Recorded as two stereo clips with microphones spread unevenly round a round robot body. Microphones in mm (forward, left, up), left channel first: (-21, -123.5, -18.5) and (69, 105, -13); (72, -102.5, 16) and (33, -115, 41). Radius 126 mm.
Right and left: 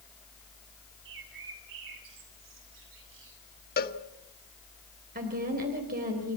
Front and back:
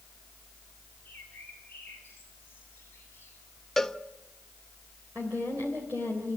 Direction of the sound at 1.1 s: 80° left.